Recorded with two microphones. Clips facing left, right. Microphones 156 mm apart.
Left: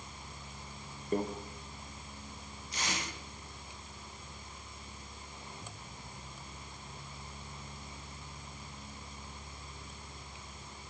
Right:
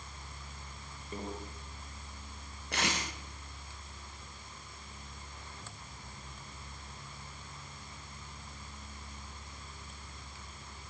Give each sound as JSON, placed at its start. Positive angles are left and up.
{"t": 1.1, "sound": "a microwave", "side_deg": 50, "distance_m": 4.5}
{"t": 2.7, "sound": "tape being pulled", "side_deg": -70, "distance_m": 8.5}